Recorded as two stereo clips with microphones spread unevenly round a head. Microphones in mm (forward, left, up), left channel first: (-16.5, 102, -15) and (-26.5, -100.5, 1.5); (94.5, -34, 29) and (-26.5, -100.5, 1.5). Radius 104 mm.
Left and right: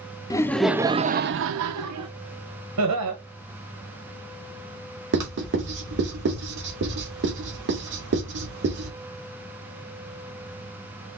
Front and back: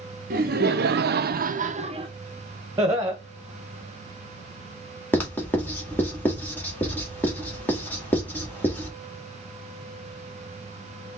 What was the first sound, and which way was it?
Laughter, 160° left.